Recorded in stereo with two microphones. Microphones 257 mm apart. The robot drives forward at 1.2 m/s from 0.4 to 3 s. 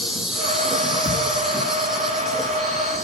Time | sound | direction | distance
0.0 | an insect | centre (ahead or behind) | 4.5 m
1.0 | a thud | 15° left (ahead or behind) | 8 m